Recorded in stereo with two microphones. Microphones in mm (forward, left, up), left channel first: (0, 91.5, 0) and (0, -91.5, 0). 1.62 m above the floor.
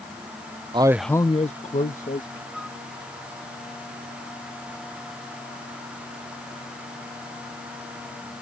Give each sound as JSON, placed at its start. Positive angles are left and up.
{"t": 0.7, "sound": "a man speaking", "side_deg": -25}
{"t": 2.5, "sound": "a flute", "side_deg": 0}